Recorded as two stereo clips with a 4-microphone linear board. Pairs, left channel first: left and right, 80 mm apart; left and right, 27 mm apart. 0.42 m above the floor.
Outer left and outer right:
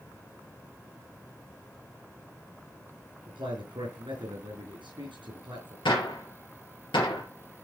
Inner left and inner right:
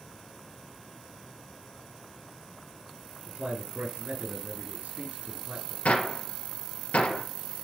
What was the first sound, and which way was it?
A man speaking, 85° right.